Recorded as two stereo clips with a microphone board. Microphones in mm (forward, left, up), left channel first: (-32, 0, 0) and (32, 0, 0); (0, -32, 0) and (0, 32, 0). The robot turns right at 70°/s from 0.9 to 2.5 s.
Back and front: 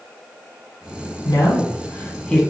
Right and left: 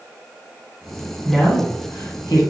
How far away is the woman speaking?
About 1.5 m.